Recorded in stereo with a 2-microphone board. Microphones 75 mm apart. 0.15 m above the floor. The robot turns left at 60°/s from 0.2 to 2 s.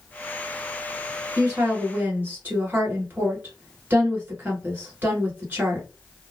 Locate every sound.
1.4 s a woman speaking: 105° right, 1.8 m; by 5.8 s 145° right, 1.8 m